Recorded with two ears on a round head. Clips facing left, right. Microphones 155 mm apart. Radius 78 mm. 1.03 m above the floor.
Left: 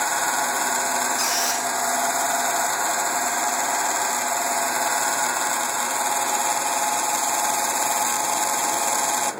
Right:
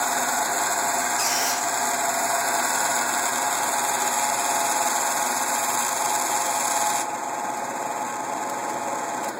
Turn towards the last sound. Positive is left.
turn(degrees=10)  # may be behind; listen again after turning